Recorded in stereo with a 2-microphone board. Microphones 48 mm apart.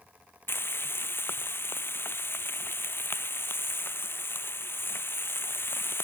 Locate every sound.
0.5 s frying: 50° left (ahead or behind)